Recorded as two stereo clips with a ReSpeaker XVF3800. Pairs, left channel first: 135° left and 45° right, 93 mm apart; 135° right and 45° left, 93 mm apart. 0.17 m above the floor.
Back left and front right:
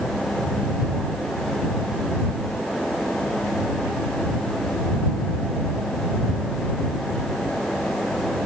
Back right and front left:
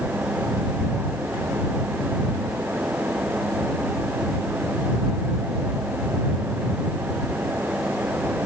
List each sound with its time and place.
Only background noise.